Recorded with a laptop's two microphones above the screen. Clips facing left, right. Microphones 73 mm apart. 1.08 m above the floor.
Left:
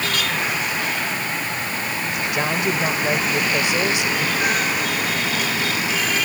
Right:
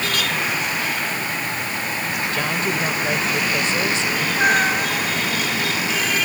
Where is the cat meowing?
40° right (ahead or behind).